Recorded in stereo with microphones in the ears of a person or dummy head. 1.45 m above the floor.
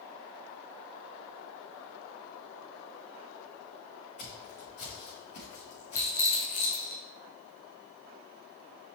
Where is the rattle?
45° left (ahead or behind), 1.4 m.